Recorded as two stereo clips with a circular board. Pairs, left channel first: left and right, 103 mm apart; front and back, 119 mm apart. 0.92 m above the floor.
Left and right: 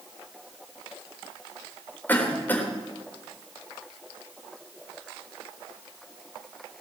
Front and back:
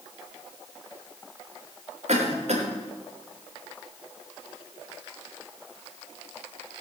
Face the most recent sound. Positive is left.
turn(degrees=160)